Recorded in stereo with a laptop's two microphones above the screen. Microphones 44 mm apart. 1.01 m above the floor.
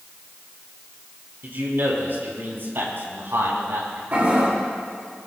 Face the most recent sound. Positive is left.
turn(degrees=-40)  # may be behind; listen again after turning